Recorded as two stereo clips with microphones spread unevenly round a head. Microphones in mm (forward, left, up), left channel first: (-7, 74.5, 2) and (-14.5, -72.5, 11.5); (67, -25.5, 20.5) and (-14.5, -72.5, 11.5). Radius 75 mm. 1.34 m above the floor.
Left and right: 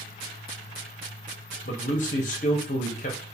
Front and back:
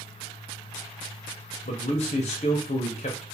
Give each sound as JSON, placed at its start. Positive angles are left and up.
{"t": 1.6, "sound": "a man speaking", "azimuth_deg": 45, "distance_m": 0.6}